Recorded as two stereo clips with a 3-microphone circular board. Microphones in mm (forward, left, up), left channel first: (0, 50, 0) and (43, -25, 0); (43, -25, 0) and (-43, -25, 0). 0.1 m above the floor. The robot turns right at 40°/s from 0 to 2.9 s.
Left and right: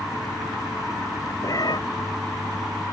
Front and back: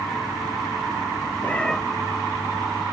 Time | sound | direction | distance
1.4 | a cat meowing | 70° left | ?